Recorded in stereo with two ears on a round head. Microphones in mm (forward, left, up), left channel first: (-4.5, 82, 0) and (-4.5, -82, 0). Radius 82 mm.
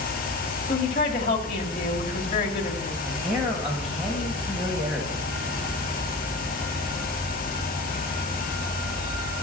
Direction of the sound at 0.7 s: 30° left (ahead or behind).